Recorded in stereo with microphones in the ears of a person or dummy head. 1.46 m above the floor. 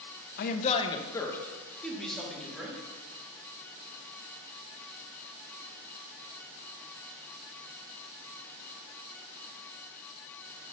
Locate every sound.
0.4 s a man speaking: 55° left (ahead or behind), 1.0 m; by 2.8 s 5° right (ahead or behind), 4 m